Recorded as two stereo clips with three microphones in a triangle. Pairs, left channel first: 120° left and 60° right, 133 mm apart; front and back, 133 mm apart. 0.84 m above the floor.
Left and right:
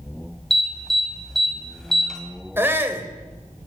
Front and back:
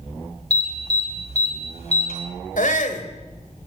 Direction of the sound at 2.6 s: 15° left.